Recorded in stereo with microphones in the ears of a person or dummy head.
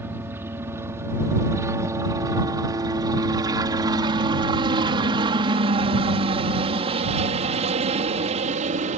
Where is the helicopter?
15° right (ahead or behind); by 9.0 s 40° right (ahead or behind).